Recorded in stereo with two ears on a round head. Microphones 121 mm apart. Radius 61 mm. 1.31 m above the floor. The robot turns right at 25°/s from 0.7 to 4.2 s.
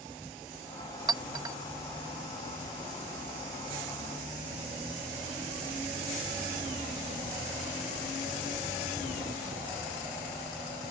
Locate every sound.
1.1 s a clink: 30° right (ahead or behind); by 1.6 s 25° right (ahead or behind)